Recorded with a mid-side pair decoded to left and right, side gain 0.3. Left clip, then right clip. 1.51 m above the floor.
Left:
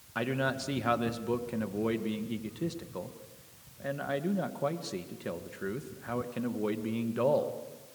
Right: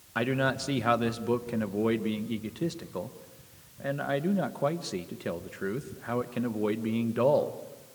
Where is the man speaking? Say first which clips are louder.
Right 3 dB; 35° right, 1.6 m.